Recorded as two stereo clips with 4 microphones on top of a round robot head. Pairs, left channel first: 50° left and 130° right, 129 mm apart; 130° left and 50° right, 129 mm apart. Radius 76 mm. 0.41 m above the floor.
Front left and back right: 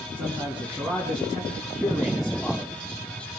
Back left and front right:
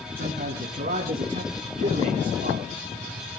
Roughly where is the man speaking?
Ahead right.